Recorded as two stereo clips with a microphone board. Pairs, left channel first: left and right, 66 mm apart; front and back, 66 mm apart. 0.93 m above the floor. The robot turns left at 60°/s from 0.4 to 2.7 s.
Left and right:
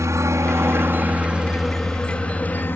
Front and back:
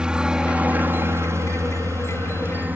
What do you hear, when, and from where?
0.0 s a helicopter: 105° right; by 2.8 s 130° left